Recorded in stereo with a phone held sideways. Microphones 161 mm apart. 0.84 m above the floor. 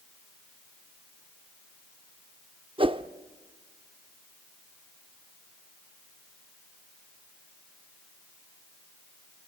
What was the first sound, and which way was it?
A whoosh, 35° right (ahead or behind).